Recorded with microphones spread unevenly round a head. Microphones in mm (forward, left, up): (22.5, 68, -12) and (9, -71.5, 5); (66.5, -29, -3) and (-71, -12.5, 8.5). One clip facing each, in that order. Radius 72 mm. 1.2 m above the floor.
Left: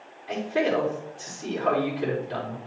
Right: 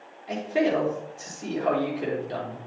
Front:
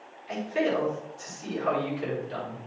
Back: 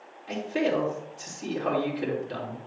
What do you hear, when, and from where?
0.3 s a man speaking: 160° right, 3 m